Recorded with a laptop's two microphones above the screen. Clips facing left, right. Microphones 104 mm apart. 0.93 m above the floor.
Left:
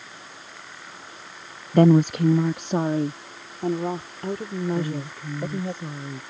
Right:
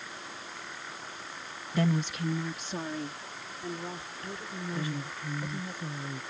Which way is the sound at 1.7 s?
50° left (ahead or behind).